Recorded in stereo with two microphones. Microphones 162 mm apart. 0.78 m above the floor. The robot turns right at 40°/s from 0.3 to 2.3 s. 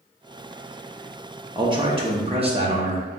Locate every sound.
1.6 s a man speaking: 25° right (ahead or behind), 0.6 m; by 3.0 s 35° right (ahead or behind), 0.6 m